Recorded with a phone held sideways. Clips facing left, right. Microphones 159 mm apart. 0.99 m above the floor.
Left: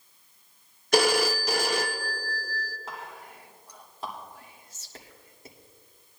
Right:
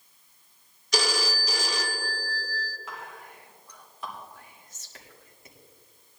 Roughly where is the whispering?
Left.